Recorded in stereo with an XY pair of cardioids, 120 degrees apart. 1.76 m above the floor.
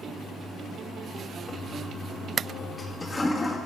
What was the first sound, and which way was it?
A toilet flushing, 10° left.